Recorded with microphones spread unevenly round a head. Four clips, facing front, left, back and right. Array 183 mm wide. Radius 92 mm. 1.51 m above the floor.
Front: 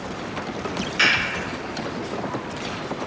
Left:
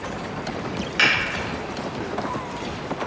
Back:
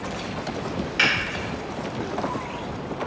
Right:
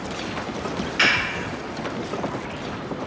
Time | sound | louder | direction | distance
1.0 | a finger snap | even, front 2 dB | 120° left | 1.2 m